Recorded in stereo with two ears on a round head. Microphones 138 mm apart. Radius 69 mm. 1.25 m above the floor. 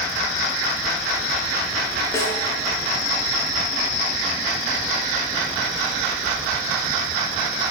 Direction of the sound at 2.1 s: 20° left (ahead or behind).